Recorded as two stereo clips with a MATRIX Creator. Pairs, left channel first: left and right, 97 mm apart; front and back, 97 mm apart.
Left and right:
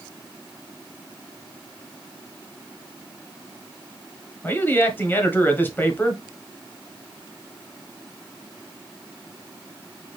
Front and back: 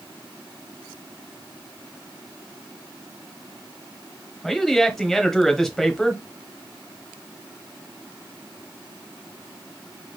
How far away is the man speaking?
About 1.0 m.